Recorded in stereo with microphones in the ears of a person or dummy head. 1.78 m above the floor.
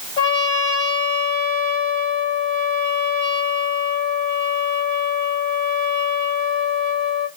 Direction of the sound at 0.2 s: 30° left (ahead or behind).